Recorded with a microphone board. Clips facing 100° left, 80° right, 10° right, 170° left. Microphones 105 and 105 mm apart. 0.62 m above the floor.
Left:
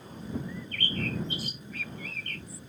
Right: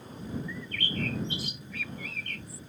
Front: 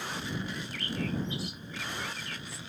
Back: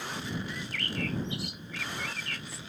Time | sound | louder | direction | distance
0.5 | a bird | even, even | 145° left | ?